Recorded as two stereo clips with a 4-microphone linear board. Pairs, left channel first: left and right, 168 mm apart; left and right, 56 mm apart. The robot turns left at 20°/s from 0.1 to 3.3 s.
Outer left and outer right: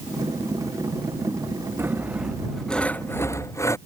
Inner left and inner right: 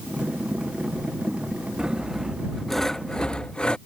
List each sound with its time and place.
1.8 s sawing: 165° right; by 3.8 s 165° left